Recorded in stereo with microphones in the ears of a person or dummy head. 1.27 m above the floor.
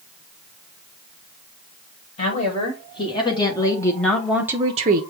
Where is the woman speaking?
30° left (ahead or behind), 2 m; by 5.0 s 45° right (ahead or behind), 0.6 m.